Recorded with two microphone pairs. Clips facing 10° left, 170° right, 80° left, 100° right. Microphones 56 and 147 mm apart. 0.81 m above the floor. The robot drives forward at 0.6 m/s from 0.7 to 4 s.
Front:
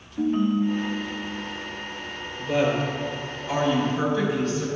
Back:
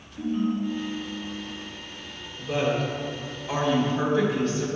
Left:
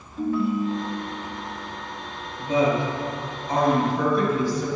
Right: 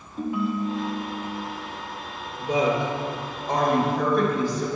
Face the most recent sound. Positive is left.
turn(degrees=-110)